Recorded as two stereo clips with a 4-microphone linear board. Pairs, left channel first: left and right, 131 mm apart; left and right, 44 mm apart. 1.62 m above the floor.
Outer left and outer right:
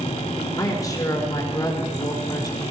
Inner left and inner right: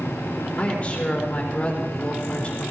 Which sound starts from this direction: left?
A woman speaking, at 0.6 s.